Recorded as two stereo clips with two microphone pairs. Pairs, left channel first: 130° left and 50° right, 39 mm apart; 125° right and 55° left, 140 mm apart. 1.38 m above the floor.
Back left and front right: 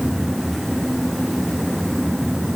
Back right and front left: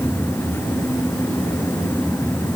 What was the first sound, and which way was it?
Only background noise.